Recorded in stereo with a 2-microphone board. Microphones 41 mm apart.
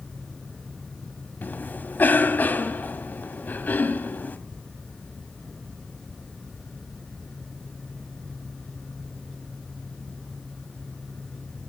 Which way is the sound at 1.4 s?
45° left (ahead or behind).